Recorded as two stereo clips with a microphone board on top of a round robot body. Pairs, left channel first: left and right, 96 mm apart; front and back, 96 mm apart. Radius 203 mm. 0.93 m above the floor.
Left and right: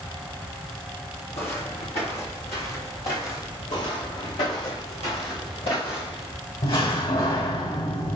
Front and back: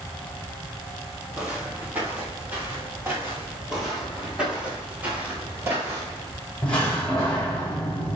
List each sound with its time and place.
1.3 s footsteps: 105° left, 2 m; by 3.6 s 115° left, 3.5 m
3.7 s footsteps: 95° left, 4.5 m; by 6.3 s 125° left, 3 m
6.6 s a door slam: 75° left, 5 m